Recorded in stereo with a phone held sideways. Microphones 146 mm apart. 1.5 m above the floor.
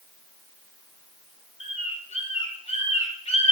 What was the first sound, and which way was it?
A bird, 45° left (ahead or behind).